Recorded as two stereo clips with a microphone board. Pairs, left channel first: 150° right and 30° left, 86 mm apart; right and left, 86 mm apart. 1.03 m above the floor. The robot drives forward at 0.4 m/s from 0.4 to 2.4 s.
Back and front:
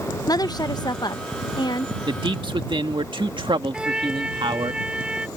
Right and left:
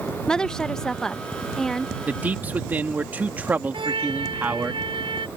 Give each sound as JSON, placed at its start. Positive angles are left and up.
{"t": 0.3, "sound": "a woman speaking", "azimuth_deg": -170}
{"t": 2.1, "sound": "a man speaking", "azimuth_deg": 20}
{"t": 3.7, "sound": "a trumpet", "azimuth_deg": 110}